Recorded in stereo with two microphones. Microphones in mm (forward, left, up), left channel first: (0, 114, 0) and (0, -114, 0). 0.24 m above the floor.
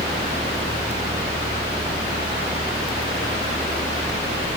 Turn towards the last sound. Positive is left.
No sound to turn to.